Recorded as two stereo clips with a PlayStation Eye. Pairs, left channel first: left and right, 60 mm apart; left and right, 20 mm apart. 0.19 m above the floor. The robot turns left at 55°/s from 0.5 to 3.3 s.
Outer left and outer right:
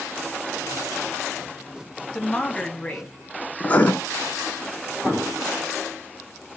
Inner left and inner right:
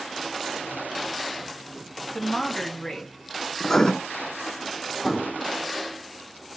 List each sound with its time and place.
2.1 s a woman speaking: 20° left (ahead or behind), 1.3 m
3.6 s writing: 25° left (ahead or behind), 0.7 m
5.0 s an explosion: 35° right (ahead or behind), 2 m